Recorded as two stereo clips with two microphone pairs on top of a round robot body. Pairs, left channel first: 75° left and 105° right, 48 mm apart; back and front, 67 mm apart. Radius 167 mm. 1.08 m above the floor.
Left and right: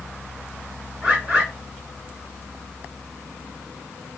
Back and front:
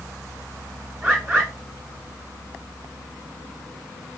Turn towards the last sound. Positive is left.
turn(degrees=-50)